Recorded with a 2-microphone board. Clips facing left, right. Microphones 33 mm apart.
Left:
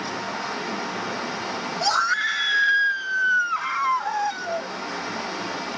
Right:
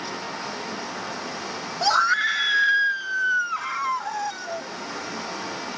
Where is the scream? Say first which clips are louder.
Right 2 dB; 15° right (ahead or behind); by 4.7 s 15° left (ahead or behind).